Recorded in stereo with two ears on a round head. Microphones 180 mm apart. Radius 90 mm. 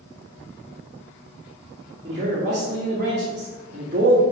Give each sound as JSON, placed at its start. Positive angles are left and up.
{"t": 2.0, "sound": "a man speaking", "side_deg": -35, "distance_m": 1.4}